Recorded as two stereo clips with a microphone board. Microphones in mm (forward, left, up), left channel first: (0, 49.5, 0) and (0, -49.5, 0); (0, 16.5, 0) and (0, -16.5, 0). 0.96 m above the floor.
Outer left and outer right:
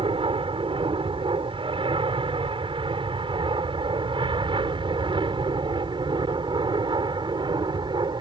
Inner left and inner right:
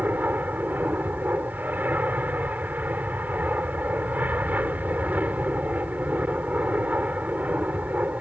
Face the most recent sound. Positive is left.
turn(degrees=-50)  # may be behind; listen again after turning